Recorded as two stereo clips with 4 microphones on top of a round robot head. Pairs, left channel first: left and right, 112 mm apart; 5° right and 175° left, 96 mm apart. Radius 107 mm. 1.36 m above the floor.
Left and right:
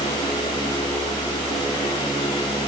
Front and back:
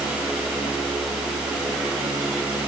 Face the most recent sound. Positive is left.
No sound to turn to.